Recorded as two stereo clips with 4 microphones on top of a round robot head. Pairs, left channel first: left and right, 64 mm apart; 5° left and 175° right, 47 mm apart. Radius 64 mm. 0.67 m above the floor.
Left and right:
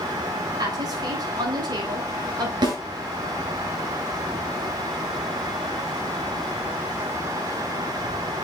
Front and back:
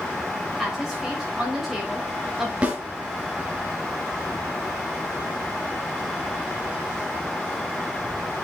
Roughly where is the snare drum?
Right.